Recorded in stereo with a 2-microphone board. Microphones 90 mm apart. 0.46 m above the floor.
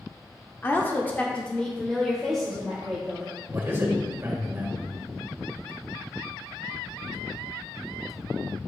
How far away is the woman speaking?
About 0.7 m.